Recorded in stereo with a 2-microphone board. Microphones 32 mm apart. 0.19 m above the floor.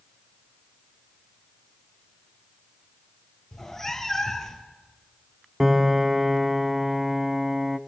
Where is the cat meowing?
15° left (ahead or behind), 1.4 m.